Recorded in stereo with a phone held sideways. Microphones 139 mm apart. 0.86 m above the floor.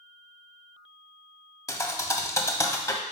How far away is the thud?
About 0.7 m.